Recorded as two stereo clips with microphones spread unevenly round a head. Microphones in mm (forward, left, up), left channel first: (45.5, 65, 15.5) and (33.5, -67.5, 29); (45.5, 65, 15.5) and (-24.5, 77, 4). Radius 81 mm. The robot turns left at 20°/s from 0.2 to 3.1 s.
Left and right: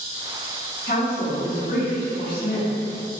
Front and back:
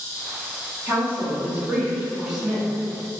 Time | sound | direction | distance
0.9 | a woman speaking | 115° left | 0.8 m